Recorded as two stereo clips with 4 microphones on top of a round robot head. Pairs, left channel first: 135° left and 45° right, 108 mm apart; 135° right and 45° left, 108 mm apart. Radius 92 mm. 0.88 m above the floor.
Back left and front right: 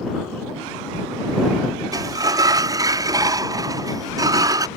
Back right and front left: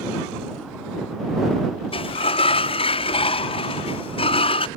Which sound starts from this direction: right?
A sliding door, at 1.9 s.